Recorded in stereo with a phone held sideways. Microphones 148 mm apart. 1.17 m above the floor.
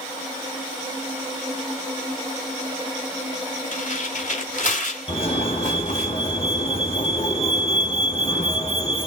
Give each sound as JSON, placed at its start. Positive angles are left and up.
{"t": 3.7, "sound": "tearing paper", "side_deg": 60, "distance_m": 2.5}
{"t": 5.1, "sound": "a fire alarm", "side_deg": 45, "distance_m": 2.5}